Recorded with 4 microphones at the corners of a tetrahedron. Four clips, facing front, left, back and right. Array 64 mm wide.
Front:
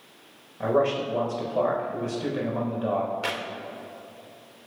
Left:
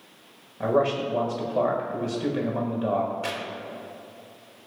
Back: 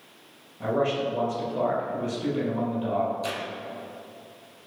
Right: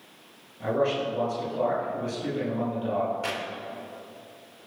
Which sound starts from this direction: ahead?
Tearing paper, at 3.2 s.